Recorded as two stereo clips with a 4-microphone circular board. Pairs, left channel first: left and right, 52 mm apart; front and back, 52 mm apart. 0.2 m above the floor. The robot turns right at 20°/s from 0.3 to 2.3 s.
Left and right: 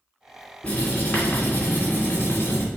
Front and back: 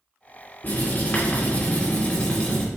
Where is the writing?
30° left, 2.5 m; by 2.6 s 65° left, 2.5 m.